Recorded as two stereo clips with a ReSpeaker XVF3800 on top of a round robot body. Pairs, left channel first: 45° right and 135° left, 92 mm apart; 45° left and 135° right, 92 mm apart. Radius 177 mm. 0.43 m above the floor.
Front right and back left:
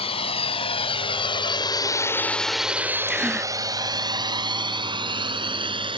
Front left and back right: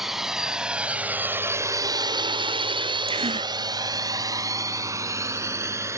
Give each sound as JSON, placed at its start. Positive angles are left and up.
{"t": 0.0, "sound": "a drone", "azimuth_deg": -50}
{"t": 3.1, "sound": "a gasp", "azimuth_deg": -145}